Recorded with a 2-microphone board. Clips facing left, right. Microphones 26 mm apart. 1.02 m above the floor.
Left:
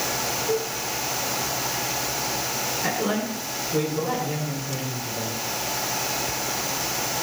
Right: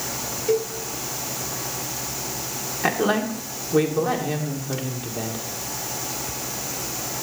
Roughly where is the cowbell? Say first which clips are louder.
Right 6 dB; right.